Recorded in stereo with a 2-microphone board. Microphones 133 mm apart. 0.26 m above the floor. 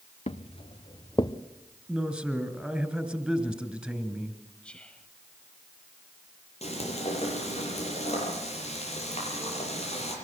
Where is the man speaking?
5° right (ahead or behind), 3 m.